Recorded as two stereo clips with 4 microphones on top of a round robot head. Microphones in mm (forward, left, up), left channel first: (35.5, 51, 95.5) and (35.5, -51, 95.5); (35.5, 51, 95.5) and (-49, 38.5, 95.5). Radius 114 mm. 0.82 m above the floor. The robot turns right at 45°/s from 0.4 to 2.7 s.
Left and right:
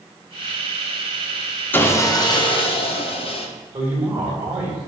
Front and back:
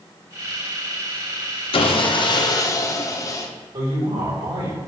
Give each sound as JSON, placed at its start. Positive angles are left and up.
{"t": 1.7, "sound": "sawing", "azimuth_deg": 15, "distance_m": 1.1}
{"t": 3.7, "sound": "a woman speaking", "azimuth_deg": -160, "distance_m": 3.5}